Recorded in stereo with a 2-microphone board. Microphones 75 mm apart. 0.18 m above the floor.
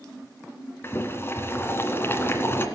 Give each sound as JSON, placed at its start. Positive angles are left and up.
{"t": 0.8, "sound": "boiling", "side_deg": 30, "distance_m": 2.0}